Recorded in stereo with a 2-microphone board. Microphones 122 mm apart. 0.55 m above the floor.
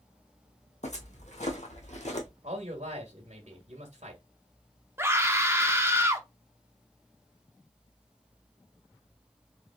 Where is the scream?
20° right (ahead or behind), 1.0 m.